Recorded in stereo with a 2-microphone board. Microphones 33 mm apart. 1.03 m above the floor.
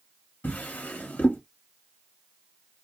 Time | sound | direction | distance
0.4 | a drawer | 65° left (ahead or behind) | 1.0 m